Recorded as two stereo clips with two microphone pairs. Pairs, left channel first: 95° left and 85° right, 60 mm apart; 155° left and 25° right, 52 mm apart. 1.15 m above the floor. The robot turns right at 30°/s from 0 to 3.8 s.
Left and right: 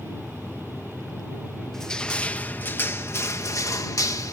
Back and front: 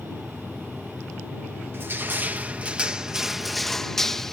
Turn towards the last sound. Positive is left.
turn(degrees=75)